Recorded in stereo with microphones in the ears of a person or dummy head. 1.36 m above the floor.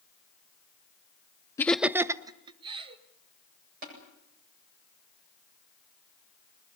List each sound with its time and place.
1.6 s laughter: 15° left (ahead or behind), 0.5 m; by 3.0 s 30° right (ahead or behind), 2 m
3.8 s tapping: 45° right (ahead or behind), 8 m